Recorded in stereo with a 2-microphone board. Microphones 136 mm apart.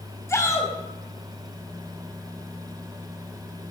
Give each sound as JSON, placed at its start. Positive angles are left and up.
{"t": 0.3, "sound": "a shout", "side_deg": 20, "distance_m": 4.0}